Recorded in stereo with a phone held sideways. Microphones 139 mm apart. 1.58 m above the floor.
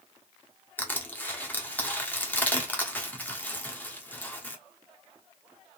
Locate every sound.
0.8 s crushing: 10° left (ahead or behind), 0.7 m